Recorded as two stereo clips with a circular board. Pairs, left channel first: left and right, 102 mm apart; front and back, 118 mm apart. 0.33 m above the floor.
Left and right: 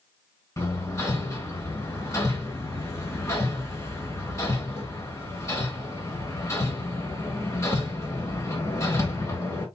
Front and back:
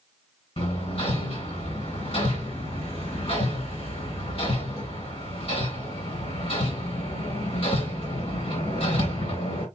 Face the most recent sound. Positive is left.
turn(degrees=30)